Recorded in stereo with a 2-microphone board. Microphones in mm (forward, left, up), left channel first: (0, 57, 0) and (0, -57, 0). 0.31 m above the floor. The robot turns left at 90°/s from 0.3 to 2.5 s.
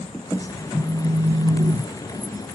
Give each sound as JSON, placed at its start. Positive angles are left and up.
{"t": 0.7, "sound": "a phone buzzing", "azimuth_deg": -5, "distance_m": 1.3}